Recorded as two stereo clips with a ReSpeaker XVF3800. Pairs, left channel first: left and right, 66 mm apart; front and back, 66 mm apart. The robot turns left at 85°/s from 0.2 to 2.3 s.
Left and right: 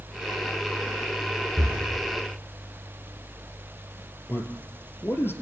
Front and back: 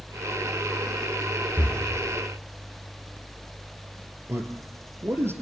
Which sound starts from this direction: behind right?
Breathing, at 1.6 s.